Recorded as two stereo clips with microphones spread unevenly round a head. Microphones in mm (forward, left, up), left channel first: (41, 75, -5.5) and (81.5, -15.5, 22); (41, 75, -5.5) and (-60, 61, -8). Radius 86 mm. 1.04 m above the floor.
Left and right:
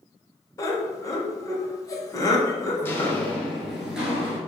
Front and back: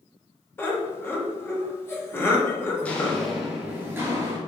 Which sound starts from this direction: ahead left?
Footsteps, at 2.8 s.